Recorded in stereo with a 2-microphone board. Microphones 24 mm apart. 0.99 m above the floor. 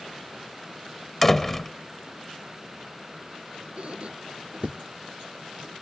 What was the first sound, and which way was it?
A door slam, 10° left (ahead or behind).